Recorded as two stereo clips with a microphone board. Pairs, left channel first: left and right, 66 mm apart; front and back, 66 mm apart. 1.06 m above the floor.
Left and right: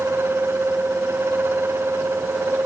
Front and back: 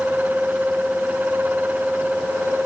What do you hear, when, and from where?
Only background noise.